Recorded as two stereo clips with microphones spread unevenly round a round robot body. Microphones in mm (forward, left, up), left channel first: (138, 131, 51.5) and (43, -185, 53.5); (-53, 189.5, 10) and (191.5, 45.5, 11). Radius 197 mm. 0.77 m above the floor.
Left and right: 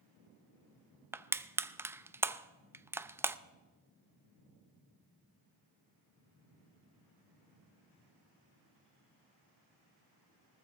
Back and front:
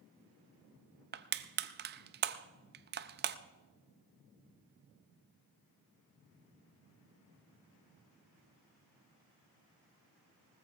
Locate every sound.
1.1 s crushing: 25° right, 0.5 m